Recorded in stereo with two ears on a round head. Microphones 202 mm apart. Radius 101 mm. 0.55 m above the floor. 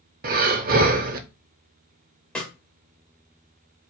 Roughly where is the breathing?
Right.